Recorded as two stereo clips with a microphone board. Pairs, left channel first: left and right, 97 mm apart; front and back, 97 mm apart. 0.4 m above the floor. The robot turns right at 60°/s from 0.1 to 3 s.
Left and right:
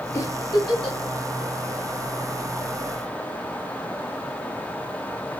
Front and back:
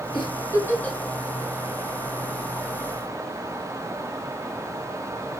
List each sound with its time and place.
0.1 s a giggle: 30° left, 2.5 m; by 1.0 s 80° left, 2.5 m